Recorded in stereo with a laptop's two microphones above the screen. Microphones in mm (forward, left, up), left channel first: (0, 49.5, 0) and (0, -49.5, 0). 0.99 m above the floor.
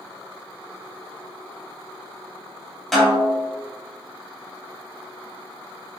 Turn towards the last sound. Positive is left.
turn(degrees=5)  # may be behind; listen again after turning